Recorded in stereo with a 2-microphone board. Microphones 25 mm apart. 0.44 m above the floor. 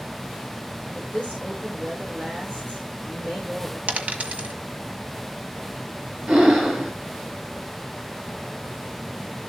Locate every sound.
0.9 s a woman speaking: 75° right (ahead or behind), 5.5 m
3.9 s a dropped coin: 75° right (ahead or behind), 1.4 m
6.3 s breathing: 75° right (ahead or behind), 5 m